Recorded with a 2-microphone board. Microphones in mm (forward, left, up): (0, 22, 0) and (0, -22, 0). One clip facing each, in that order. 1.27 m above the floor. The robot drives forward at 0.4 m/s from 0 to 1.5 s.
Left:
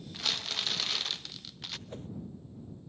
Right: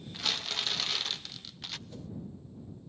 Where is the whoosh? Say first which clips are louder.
Left 2 dB; 40° left (ahead or behind), 0.6 m.